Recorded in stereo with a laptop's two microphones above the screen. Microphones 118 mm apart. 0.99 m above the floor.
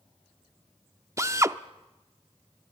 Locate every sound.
1.2 s a drill: 25° right (ahead or behind), 0.6 m